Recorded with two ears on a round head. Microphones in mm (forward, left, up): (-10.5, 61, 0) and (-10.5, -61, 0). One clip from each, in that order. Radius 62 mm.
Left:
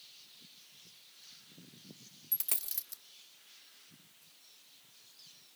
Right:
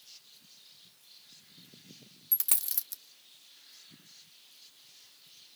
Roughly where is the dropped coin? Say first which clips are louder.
Right 6 dB; right.